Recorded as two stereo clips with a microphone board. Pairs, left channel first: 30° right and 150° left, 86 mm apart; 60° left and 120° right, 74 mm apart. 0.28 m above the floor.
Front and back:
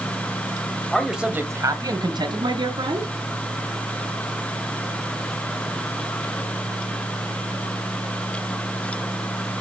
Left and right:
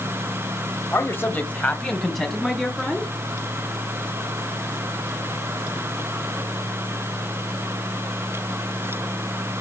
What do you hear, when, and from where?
0.9 s a man speaking: 45° left, 1.2 m; by 3.1 s 155° left, 3 m